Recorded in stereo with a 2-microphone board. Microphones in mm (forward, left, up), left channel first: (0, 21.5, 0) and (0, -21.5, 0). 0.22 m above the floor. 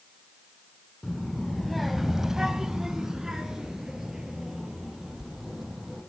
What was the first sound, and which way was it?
A child speaking, 5° left (ahead or behind).